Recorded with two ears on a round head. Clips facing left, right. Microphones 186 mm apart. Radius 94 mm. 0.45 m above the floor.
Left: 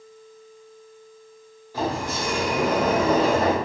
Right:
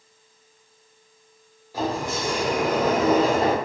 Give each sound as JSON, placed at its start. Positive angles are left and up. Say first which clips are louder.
{"t": 1.7, "sound": "a sliding door", "louder": "even", "side_deg": -10, "distance_m": 0.9}